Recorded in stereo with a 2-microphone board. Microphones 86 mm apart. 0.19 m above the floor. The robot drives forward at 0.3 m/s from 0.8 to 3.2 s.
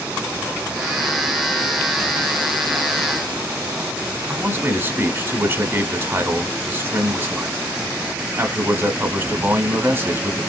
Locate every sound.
4.3 s a man speaking: 25° right (ahead or behind), 1.2 m